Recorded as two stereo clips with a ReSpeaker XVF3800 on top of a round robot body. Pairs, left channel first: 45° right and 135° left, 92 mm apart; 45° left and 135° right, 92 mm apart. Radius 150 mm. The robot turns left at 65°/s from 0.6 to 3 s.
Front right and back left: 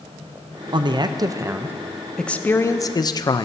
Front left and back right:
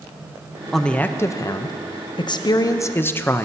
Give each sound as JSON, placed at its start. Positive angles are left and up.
{"t": 0.7, "sound": "a man speaking", "azimuth_deg": 135, "distance_m": 0.8}